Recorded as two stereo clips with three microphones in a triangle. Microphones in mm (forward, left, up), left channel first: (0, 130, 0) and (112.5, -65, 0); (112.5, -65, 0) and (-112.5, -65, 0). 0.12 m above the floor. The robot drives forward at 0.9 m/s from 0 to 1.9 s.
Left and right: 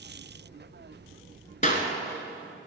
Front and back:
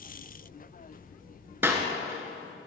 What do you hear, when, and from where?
1.6 s a clap: 110° left, 1.3 m; by 1.9 s 125° left, 1.3 m